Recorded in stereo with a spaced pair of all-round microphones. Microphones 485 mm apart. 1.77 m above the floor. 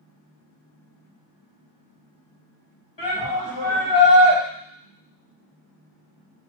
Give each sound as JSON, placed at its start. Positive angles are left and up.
{"t": 3.0, "sound": "a shout", "side_deg": 65, "distance_m": 2.0}